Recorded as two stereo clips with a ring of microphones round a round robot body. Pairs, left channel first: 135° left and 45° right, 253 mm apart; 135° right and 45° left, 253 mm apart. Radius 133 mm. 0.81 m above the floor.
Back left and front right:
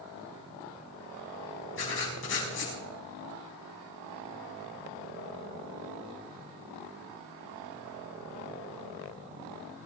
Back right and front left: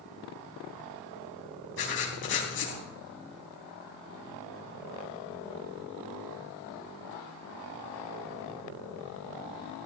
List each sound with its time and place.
1.8 s writing: straight behind, 4 m